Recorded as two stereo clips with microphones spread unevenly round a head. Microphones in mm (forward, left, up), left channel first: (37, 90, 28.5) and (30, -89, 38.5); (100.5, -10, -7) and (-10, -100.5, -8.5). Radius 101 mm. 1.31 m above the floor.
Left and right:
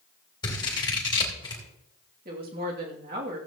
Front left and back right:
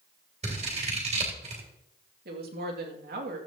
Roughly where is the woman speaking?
Behind right.